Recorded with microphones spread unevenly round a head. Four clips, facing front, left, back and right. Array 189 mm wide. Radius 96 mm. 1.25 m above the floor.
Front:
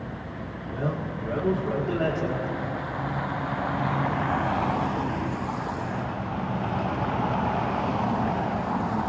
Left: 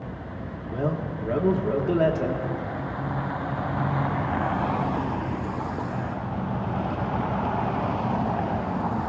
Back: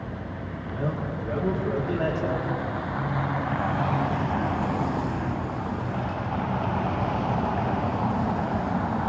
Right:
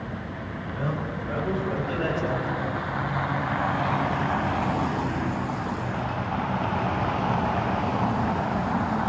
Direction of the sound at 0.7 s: 100° left.